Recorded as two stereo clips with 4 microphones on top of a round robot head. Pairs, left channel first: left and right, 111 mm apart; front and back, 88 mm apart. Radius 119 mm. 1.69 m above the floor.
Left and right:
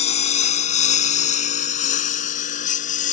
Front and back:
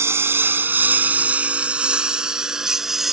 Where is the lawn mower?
115° left; by 3.1 s 95° left.